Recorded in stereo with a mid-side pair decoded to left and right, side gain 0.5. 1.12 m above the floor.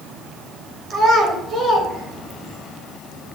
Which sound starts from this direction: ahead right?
A child speaking, at 0.9 s.